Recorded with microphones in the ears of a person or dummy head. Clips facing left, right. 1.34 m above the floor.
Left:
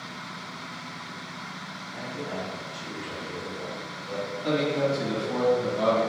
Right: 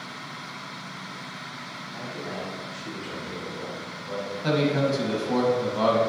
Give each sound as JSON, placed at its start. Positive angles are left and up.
{"t": 1.9, "sound": "a man speaking", "side_deg": 20, "distance_m": 1.9}
{"t": 4.4, "sound": "a man speaking", "side_deg": -65, "distance_m": 1.2}